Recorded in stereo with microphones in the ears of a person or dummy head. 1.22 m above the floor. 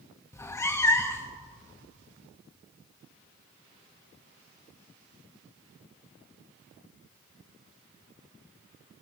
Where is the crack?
No crack in this recording.